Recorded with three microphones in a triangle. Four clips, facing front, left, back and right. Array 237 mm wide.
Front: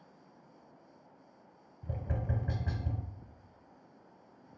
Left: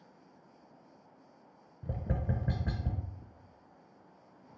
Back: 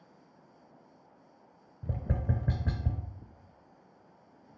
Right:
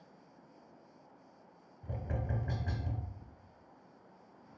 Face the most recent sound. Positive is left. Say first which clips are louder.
# left 4 dB, back 4 dB
turn(degrees=155)